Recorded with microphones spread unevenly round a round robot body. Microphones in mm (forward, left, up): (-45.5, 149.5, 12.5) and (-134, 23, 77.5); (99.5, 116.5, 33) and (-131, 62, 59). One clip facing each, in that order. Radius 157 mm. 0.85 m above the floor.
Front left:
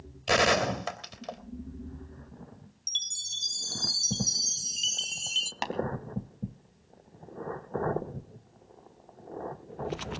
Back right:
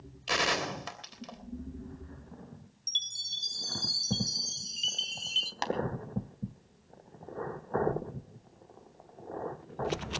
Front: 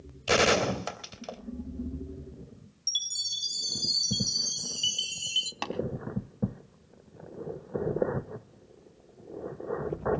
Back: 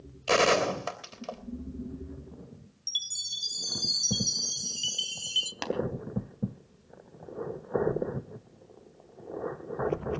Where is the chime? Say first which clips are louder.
Even, back 1 dB; 105° left, 0.7 m.